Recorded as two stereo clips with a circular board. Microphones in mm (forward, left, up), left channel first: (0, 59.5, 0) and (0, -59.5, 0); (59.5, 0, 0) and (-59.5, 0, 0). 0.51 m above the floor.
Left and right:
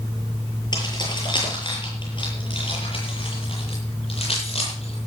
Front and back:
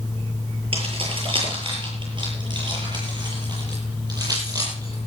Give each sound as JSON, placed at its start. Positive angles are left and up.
{"t": 0.7, "sound": "keys jangling", "azimuth_deg": 145, "distance_m": 8.0}